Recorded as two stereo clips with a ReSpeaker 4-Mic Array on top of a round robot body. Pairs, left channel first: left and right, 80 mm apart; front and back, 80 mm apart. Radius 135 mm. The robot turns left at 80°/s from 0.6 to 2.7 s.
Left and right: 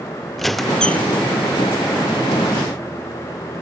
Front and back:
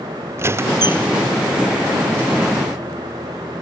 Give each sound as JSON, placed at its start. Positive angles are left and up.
{"t": 0.4, "sound": "a squeak", "azimuth_deg": 175, "distance_m": 0.6}